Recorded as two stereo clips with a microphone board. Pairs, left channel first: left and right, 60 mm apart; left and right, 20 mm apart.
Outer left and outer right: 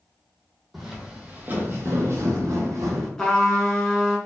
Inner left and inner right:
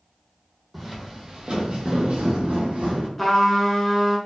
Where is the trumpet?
10° left (ahead or behind), 0.8 m.